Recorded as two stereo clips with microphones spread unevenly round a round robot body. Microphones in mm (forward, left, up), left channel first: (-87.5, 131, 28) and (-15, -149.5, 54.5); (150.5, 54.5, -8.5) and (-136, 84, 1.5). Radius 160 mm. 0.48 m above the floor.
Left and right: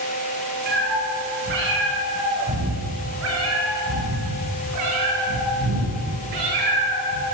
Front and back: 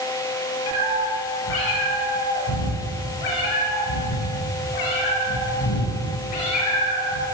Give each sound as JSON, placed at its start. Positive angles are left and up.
{"t": 0.7, "sound": "a cat meowing", "azimuth_deg": -15, "distance_m": 6.0}